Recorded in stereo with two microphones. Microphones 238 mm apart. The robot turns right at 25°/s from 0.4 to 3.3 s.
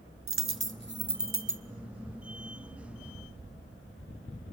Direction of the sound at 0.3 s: 65° right (ahead or behind).